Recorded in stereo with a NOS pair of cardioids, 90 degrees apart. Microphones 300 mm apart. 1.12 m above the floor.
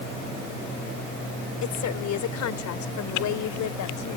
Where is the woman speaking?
65° left; by 4.2 s 75° left.